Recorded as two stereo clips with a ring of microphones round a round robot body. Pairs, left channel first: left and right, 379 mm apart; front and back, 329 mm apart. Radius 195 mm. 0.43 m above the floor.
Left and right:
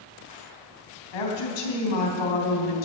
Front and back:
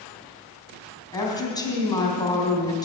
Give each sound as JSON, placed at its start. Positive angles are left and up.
{"t": 1.1, "sound": "a woman speaking", "azimuth_deg": 80, "distance_m": 3.5}